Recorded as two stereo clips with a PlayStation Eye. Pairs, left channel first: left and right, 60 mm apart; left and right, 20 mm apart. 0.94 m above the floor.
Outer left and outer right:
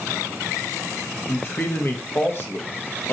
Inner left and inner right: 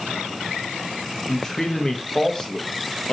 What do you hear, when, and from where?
1.3 s a man speaking: 35° left (ahead or behind), 0.8 m